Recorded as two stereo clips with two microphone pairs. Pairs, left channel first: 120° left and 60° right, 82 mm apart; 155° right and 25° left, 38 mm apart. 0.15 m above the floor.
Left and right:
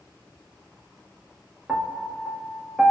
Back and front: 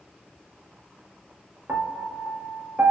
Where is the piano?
15° left, 1.4 m.